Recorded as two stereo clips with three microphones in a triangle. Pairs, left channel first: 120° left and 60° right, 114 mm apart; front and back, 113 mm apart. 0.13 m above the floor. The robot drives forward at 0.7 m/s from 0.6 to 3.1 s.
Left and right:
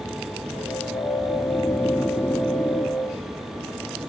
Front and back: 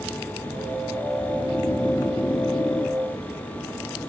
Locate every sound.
1.3 s snoring: 45° left; by 3.0 s 50° left